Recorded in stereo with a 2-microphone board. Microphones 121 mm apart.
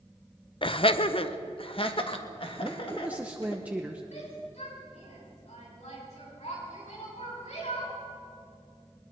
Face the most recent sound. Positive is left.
turn(degrees=70)  # may be behind; listen again after turning